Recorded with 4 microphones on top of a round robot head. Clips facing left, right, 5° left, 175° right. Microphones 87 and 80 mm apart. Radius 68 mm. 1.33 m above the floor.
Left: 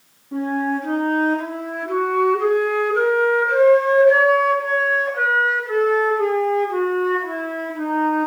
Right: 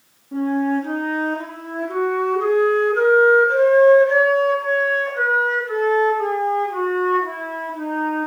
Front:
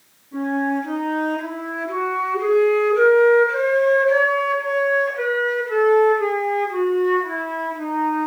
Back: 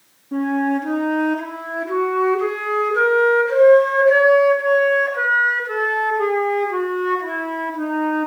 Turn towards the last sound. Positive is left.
turn(degrees=180)